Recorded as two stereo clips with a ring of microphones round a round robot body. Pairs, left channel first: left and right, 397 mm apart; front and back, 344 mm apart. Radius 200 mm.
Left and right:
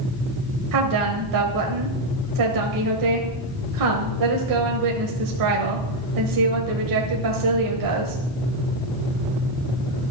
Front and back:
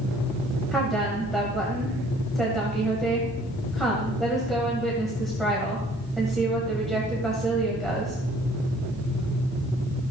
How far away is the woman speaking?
About 1.5 m.